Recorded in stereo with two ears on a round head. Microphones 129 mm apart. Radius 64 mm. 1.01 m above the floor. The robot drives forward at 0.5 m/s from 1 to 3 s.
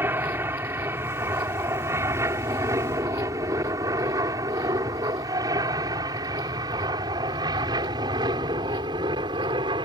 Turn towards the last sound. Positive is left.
turn(degrees=-30)  # may be behind; listen again after turning